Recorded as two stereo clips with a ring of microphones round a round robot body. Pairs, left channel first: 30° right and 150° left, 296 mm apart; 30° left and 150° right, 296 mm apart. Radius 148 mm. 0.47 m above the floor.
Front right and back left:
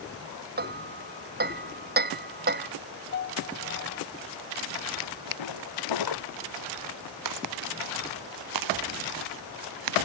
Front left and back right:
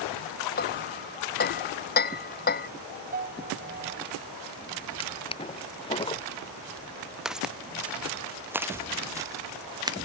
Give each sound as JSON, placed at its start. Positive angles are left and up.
{"t": 0.6, "sound": "hammering", "azimuth_deg": 90}
{"t": 3.1, "sound": "a piano", "azimuth_deg": -90}
{"t": 5.0, "sound": "a drawer", "azimuth_deg": -45}
{"t": 7.2, "sound": "footsteps", "azimuth_deg": 120}